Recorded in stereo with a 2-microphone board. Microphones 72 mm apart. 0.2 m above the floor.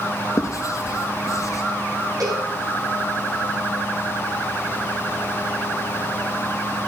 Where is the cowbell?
60° right (ahead or behind), 8 m.